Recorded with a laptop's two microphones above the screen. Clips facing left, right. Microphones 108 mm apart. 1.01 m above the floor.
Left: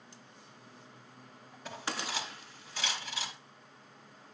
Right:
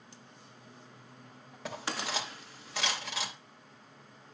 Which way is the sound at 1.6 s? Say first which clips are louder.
Right 2 dB; 85° right.